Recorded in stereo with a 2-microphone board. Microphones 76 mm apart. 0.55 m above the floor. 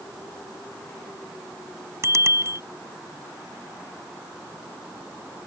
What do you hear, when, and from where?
2.0 s a bicycle bell: 40° right (ahead or behind)